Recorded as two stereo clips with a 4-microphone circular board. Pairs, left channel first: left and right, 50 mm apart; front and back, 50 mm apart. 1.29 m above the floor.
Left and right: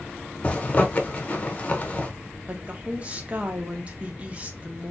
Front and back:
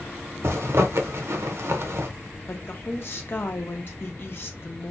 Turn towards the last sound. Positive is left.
turn(degrees=-30)